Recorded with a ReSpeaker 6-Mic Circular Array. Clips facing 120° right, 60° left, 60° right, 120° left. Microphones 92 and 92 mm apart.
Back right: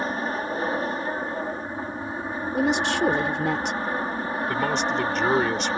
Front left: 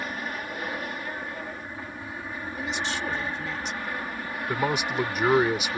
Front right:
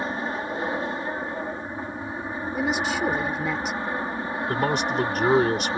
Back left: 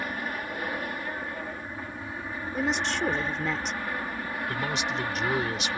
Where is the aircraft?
100° right.